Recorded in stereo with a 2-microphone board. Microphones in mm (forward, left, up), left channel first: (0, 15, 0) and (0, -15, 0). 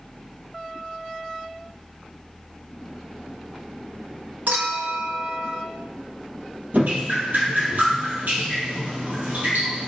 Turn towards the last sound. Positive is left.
turn(degrees=-65)  # may be behind; listen again after turning